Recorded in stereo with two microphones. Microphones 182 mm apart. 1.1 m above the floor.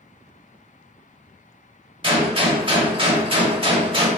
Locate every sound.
2.0 s a gunshot: 30° right (ahead or behind), 1.1 m